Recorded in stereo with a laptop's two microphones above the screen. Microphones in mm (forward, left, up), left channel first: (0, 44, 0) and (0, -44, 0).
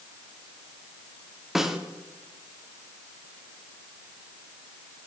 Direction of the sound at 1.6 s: 5° right (ahead or behind).